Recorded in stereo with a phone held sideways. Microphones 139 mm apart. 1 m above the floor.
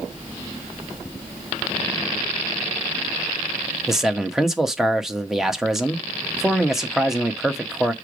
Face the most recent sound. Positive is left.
turn(degrees=0)  # may be behind; listen again after turning